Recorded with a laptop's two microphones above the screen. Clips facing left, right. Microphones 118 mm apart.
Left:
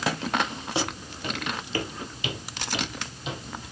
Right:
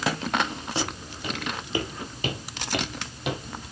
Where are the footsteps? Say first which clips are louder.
Left 3 dB; 10° left (ahead or behind), 2.5 m; by 3.7 s 65° right (ahead or behind), 2.5 m.